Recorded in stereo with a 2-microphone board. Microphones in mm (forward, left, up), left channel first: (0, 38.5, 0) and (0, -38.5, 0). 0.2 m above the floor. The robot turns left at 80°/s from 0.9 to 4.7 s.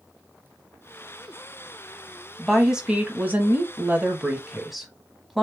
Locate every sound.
2.4 s a woman speaking: 5° left (ahead or behind), 1.0 m; by 5.4 s centre (ahead or behind), 1.0 m